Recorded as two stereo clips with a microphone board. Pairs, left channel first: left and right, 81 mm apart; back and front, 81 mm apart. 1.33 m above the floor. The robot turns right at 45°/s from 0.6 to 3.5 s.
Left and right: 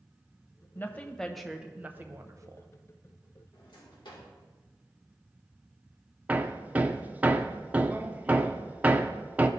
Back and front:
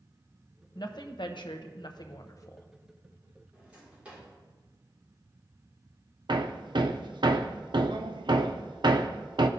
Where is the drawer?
75° left, 2 m.